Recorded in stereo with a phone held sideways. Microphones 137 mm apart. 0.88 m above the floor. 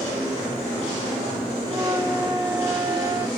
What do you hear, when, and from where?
1.7 s a flute: 25° right (ahead or behind), 1.1 m